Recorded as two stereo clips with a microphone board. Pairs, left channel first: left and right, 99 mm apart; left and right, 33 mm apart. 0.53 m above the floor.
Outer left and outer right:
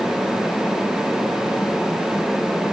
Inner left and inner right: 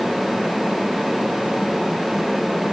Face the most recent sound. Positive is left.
No sound to turn to.